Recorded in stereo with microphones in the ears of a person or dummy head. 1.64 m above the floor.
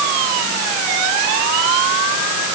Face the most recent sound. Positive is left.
No sound to turn to.